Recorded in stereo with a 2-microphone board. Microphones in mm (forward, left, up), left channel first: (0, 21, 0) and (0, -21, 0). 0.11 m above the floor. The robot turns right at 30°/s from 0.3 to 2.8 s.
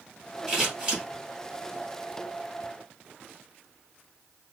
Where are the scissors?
Centre (ahead or behind), 2 m; by 1.0 s 15° right (ahead or behind), 2 m.